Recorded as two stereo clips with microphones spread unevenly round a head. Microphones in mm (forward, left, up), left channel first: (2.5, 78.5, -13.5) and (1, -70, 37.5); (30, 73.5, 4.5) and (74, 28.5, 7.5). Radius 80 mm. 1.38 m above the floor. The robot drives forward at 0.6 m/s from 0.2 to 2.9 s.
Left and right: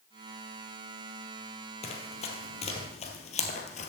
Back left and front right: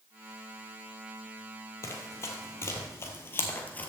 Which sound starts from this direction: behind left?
Running footsteps, at 1.8 s.